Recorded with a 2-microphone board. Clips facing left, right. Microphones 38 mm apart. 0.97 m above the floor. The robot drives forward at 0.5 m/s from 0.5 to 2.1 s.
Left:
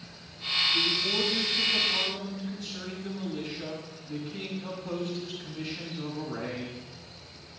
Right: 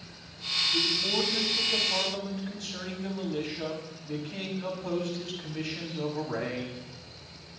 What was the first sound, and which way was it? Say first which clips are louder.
A man speaking: left 1 dB; 75° right (ahead or behind).